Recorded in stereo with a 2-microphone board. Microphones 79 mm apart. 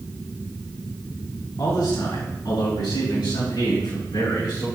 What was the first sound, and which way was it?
A man speaking, 65° left (ahead or behind).